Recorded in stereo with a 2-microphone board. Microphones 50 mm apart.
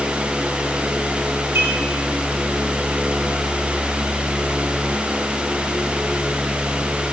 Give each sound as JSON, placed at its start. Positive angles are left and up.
{"t": 1.6, "sound": "dishes clattering", "side_deg": -60, "distance_m": 7.0}